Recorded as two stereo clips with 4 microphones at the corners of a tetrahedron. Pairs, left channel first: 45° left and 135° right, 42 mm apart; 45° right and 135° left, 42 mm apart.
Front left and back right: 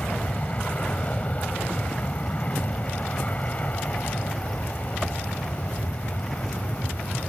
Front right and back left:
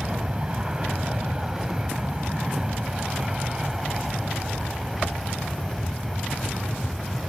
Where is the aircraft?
85° left; by 7.3 s 50° left.